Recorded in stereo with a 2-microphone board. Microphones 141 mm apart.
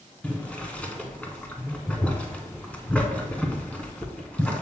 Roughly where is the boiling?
Centre.